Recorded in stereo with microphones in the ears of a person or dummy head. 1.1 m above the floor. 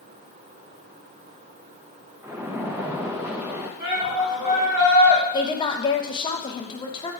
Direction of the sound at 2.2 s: 15° right (ahead or behind).